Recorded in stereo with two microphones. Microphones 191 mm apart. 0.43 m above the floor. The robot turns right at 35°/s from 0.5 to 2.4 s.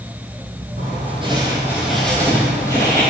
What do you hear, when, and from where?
0.8 s writing: 40° right, 2.5 m; by 3.1 s 15° left, 2.5 m